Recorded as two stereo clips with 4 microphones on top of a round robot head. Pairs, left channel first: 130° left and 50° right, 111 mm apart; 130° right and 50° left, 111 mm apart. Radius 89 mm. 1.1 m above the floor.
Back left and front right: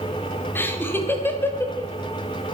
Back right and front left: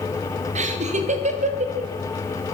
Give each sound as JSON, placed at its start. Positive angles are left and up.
{"t": 0.6, "sound": "laughter", "azimuth_deg": 60, "distance_m": 2.5}